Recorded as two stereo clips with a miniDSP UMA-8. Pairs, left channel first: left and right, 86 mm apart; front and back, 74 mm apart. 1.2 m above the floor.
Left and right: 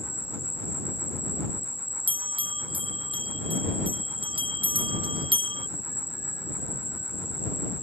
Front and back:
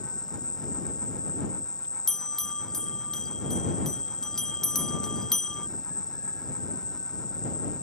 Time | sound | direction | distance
0.0 | an insect | 25° left | ?
2.1 | a bell | 85° right | ?